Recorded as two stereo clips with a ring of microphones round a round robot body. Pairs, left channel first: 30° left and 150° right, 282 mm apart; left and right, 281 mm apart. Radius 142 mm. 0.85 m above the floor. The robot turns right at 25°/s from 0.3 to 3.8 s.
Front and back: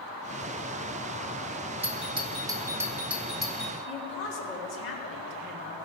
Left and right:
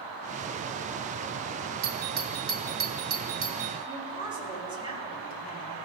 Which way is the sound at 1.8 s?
100° right.